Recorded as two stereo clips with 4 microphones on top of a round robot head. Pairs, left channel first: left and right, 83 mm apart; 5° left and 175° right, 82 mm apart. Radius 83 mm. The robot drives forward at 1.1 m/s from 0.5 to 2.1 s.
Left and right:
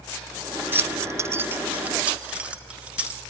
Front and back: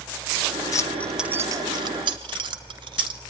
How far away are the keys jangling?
About 0.7 m.